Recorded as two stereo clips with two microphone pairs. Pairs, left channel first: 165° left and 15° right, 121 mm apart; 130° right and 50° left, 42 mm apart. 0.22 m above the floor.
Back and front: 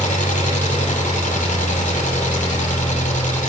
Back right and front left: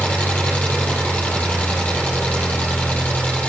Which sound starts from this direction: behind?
An engine running, at 0.0 s.